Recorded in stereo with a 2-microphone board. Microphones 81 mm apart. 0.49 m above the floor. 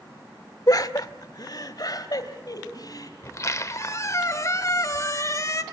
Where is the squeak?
40° left (ahead or behind), 1.2 m.